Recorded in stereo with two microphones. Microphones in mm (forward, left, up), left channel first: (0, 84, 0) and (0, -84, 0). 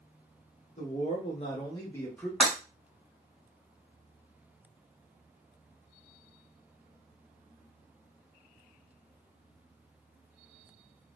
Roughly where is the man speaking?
Left.